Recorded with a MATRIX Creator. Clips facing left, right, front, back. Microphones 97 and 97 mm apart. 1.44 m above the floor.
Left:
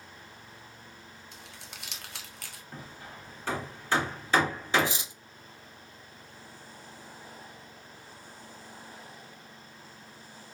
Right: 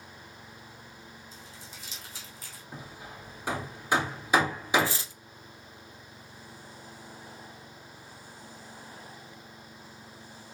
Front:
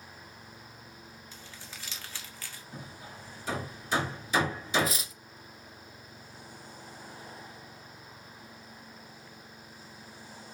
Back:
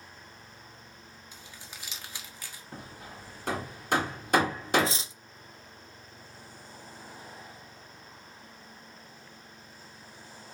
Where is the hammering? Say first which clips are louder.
Right 2 dB, back 2 dB; 165° right, 1.8 m.